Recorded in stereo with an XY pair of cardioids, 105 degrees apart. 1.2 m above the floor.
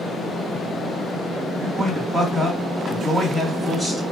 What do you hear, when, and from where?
1.6 s a man speaking: 15° left, 2 m